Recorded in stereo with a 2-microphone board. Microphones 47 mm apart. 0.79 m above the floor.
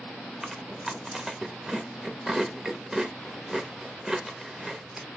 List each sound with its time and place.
0.4 s chewing: 10° right (ahead or behind), 0.8 m